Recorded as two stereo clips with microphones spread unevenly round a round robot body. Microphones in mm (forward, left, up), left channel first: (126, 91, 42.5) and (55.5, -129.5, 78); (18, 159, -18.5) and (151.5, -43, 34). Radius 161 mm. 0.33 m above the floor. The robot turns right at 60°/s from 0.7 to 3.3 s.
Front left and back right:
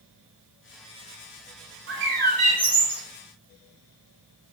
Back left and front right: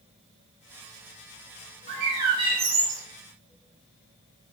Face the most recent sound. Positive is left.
turn(degrees=0)